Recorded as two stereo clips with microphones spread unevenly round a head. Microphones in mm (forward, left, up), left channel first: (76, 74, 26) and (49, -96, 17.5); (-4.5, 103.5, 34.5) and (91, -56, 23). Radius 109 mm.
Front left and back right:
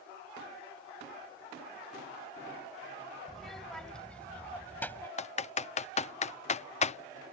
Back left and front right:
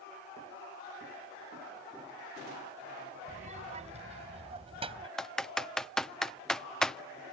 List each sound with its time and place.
3.3 s a child speaking: 10° right; by 5.1 s 5° left
5.2 s typing on a keyboard: 30° left